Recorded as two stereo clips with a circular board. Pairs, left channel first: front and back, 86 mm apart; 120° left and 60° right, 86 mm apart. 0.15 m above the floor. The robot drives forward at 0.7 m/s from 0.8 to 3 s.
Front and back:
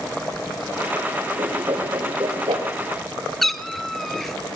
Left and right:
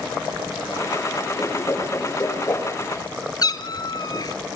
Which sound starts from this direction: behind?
A whoosh, at 1.4 s.